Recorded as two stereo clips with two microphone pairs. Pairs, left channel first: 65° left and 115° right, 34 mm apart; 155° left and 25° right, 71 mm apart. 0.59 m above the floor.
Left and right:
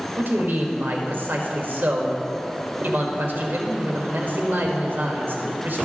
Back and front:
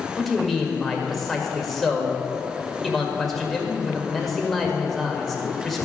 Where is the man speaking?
120° right, 1.7 m.